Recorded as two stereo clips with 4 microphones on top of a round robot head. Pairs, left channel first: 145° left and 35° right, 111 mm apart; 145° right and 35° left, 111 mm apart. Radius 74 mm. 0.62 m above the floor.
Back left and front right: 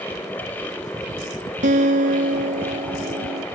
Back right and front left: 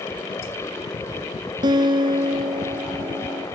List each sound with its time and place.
1.6 s a guitar: 20° right